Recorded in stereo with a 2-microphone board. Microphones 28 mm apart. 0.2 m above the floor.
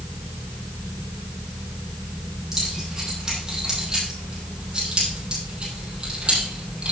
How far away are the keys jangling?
About 6.5 m.